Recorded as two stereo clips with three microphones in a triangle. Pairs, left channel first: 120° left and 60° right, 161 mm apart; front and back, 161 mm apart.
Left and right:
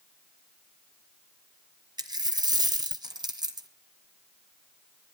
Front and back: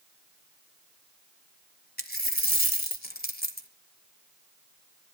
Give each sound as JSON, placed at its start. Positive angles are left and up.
{"t": 2.0, "sound": "a dropped coin", "azimuth_deg": 5, "distance_m": 1.5}